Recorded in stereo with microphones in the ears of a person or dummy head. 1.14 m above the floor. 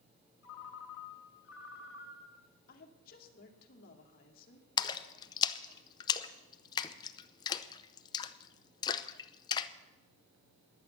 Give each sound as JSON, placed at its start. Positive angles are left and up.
{"t": 0.4, "sound": "a ringtone", "side_deg": 80, "distance_m": 2.5}
{"t": 2.7, "sound": "a woman speaking", "side_deg": 55, "distance_m": 2.5}
{"t": 4.8, "sound": "a splash", "side_deg": 25, "distance_m": 0.6}